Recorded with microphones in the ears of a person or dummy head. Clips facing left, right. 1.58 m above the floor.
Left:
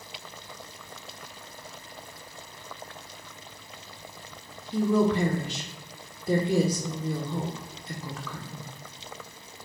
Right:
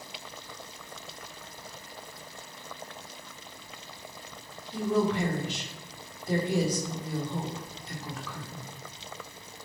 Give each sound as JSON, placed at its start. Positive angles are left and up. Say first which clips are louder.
{"t": 4.7, "sound": "a woman speaking", "louder": "left 4 dB", "side_deg": 70, "distance_m": 1.9}